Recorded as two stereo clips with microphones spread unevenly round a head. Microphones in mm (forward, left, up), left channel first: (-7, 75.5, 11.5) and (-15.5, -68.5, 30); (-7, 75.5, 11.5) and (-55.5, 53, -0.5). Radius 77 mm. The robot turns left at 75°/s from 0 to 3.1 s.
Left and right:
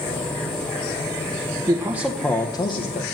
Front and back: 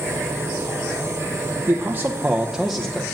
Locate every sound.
1.7 s a man speaking: 160° right, 0.7 m; by 3.0 s 100° left, 0.7 m